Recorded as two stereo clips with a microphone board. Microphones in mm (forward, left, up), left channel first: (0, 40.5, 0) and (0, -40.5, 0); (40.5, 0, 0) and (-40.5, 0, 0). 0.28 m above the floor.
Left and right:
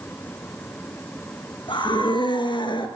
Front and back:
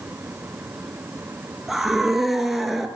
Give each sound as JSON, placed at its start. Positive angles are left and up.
{"t": 1.7, "sound": "a scream", "azimuth_deg": 90, "distance_m": 5.5}